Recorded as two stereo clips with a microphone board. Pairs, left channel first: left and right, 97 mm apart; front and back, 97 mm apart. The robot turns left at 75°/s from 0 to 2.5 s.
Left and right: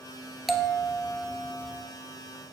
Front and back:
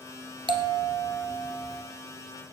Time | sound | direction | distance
0.5 | a bell | straight behind | 1.1 m